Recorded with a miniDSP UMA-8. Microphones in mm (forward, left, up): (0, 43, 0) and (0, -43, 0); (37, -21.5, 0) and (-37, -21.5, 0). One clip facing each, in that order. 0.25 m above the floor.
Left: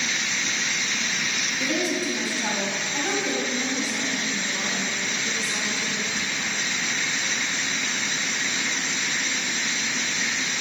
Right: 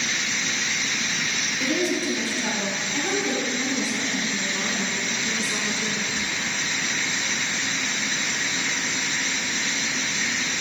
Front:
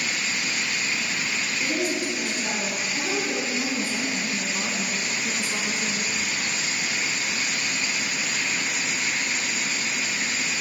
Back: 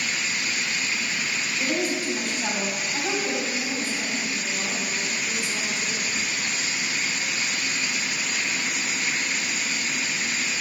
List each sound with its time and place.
1.6 s a woman speaking: 150° left, 2 m
3.5 s a woman speaking: 10° right, 1.7 m
6.2 s whispering: 175° right, 1.1 m